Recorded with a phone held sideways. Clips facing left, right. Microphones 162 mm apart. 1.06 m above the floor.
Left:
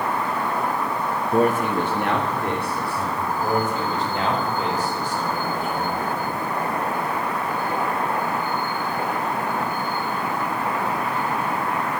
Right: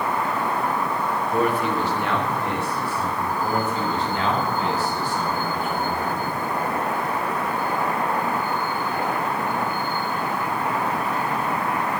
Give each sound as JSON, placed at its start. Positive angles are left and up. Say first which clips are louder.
{"t": 1.3, "sound": "a man speaking", "louder": "left 3 dB", "side_deg": 35, "distance_m": 0.6}
{"t": 3.4, "sound": "a man speaking", "louder": "left 2 dB", "side_deg": 50, "distance_m": 4.0}